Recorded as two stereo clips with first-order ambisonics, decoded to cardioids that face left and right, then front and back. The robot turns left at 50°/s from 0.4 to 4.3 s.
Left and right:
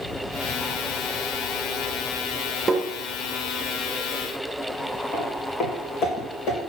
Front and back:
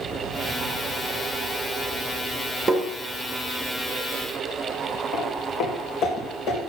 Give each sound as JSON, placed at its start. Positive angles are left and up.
{"t": 2.7, "sound": "tapping", "azimuth_deg": -140, "distance_m": 0.8}
{"t": 5.1, "sound": "footsteps", "azimuth_deg": 30, "distance_m": 2.0}